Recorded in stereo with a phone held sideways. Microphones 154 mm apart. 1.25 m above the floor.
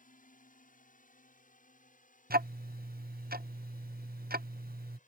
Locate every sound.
0.0 s a drone: 60° left (ahead or behind); by 5.1 s 55° left (ahead or behind)
2.3 s ticking: 80° right